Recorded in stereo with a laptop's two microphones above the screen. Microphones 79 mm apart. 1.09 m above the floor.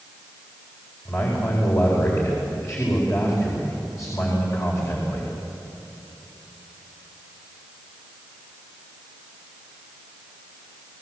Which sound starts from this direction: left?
A man speaking, at 1.1 s.